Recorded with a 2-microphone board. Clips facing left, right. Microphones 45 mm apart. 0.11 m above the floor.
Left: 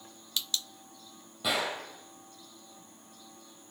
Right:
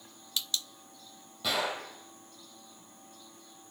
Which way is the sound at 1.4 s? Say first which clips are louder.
Even; 15° left (ahead or behind).